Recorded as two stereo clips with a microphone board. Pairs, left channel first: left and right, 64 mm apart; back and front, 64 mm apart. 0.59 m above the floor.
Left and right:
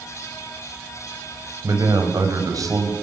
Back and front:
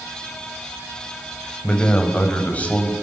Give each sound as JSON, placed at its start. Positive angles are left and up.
{"t": 1.6, "sound": "a man speaking", "azimuth_deg": -110, "distance_m": 3.5}